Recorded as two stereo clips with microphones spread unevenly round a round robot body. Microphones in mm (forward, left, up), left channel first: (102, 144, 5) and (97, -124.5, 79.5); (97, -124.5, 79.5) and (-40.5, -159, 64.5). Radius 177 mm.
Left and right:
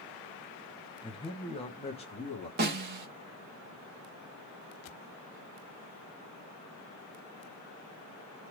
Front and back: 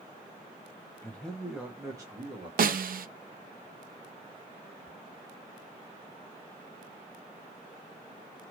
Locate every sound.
1.0 s a man speaking: 80° left, 0.8 m; by 2.5 s 145° left, 1.3 m
2.6 s a snare drum: 160° right, 0.6 m